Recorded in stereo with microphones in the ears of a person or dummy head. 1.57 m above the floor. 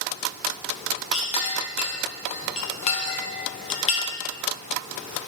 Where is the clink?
30° left (ahead or behind), 0.8 m.